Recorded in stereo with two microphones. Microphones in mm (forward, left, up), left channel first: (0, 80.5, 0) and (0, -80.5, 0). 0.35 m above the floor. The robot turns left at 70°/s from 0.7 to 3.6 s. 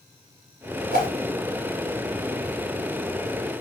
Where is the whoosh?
75° right (ahead or behind), 1.0 m; by 1.1 s 85° right, 1.0 m.